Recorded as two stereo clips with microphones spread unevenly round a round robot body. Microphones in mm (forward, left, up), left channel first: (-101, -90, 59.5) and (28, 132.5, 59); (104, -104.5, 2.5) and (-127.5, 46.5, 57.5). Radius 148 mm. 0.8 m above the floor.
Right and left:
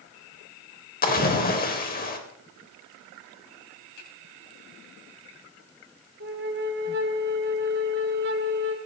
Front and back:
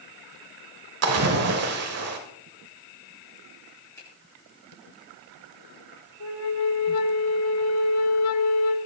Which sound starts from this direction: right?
A finger snap, at 4.0 s.